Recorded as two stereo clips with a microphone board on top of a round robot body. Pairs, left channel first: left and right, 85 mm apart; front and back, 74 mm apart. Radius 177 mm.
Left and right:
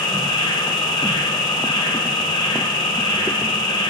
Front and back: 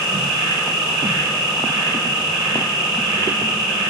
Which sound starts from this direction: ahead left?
An insect, at 0.0 s.